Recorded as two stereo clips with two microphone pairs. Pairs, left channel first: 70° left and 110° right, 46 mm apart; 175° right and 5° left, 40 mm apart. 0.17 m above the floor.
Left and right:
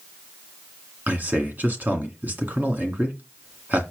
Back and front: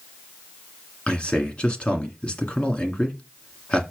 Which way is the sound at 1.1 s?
135° right.